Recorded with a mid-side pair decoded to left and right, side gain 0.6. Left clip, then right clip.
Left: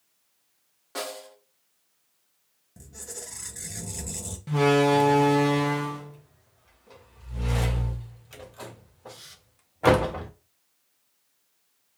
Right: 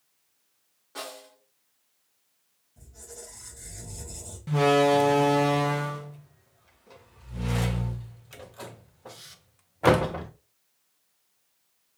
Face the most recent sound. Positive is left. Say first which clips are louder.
# even
turn(degrees=-5)